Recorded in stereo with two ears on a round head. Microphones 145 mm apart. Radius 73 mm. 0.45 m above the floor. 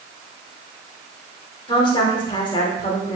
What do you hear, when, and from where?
1.7 s a woman speaking: 30° left (ahead or behind), 0.9 m